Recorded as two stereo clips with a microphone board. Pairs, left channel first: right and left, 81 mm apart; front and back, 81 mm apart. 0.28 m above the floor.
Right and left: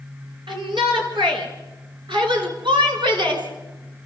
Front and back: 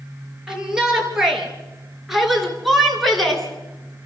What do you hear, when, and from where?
0.5 s a shout: 100° left, 5 m; by 4.1 s 85° left, 3 m